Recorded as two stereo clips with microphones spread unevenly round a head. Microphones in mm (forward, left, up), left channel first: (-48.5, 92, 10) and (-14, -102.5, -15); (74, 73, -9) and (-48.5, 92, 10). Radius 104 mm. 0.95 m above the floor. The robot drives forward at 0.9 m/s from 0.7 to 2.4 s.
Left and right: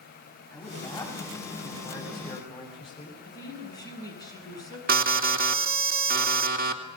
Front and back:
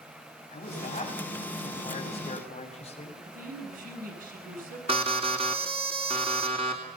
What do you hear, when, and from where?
0.5 s a man speaking: 25° left, 7.5 m; by 3.1 s 30° left, 6 m
3.2 s a woman speaking: 175° left, 8.5 m
4.9 s an alarm: 120° right, 3 m